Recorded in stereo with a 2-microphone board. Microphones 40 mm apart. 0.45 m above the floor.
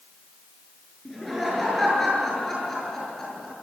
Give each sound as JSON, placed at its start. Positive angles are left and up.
{"t": 1.1, "sound": "laughter", "side_deg": 5, "distance_m": 7.0}